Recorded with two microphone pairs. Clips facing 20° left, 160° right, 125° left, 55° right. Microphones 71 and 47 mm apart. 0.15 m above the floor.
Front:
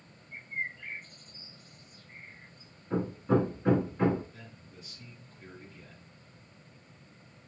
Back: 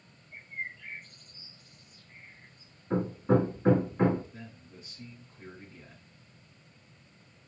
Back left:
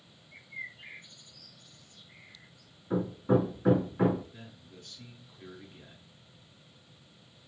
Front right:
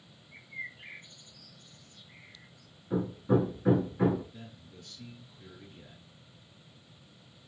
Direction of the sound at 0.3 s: 20° left.